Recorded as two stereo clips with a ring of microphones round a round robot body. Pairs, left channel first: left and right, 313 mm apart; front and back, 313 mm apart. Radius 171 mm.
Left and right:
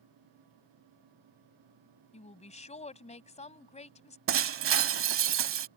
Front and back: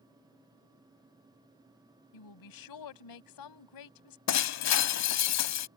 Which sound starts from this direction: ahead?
A woman speaking, at 2.1 s.